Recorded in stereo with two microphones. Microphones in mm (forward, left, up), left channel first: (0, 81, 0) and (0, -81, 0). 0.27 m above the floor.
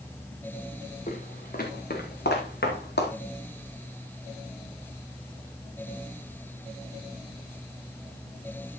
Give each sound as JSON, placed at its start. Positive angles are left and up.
{"t": 1.1, "sound": "footsteps", "side_deg": 50, "distance_m": 3.0}